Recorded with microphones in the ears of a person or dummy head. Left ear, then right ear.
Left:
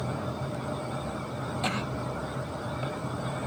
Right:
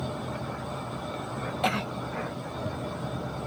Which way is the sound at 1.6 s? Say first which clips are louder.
Right 4 dB; 20° right (ahead or behind).